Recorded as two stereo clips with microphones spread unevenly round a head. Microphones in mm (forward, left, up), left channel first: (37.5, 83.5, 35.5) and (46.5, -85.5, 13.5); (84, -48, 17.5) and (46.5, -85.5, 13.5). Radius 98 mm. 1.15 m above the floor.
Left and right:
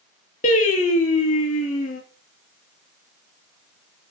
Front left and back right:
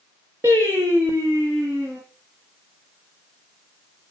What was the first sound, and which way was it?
Singing, 145° left.